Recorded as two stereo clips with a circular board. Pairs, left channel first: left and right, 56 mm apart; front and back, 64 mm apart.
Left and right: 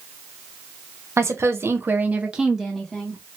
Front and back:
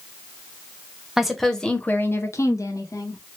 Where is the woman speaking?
95° right, 0.9 m; by 3.2 s 15° left, 1.1 m.